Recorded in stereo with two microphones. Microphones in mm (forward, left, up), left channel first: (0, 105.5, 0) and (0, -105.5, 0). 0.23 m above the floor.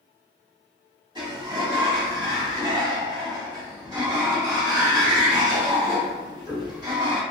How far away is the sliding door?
About 1.1 m.